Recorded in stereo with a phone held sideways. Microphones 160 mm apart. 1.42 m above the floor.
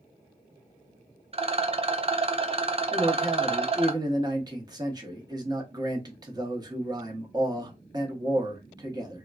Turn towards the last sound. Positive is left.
turn(degrees=-25)  # may be behind; listen again after turning